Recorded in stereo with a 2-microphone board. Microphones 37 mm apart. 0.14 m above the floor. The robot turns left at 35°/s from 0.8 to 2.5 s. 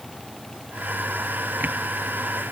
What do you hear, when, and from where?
Only background noise.